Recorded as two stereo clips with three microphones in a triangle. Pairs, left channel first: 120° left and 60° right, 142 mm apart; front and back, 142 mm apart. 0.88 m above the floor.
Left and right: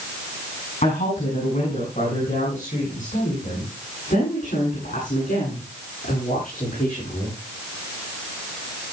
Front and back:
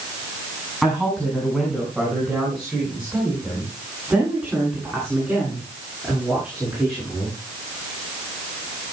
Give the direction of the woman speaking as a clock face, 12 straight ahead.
9 o'clock.